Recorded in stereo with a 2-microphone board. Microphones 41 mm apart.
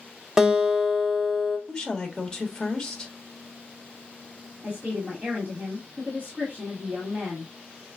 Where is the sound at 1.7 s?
15° left (ahead or behind), 1.2 m.